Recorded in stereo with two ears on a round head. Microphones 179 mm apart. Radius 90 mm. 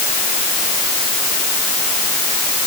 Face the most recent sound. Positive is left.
No sound to turn to.